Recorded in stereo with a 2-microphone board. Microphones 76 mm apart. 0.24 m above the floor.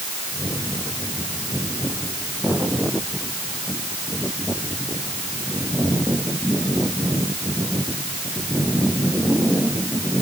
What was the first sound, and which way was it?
Only background noise.